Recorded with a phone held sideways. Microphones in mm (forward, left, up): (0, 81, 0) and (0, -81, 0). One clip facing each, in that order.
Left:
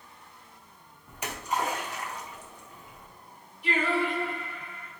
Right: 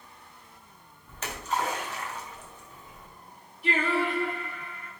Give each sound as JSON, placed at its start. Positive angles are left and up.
{"t": 1.1, "sound": "a splash", "side_deg": 10, "distance_m": 1.0}
{"t": 3.6, "sound": "singing", "side_deg": -40, "distance_m": 2.0}